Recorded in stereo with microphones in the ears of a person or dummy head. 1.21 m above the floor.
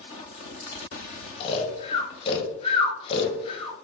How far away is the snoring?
About 0.7 m.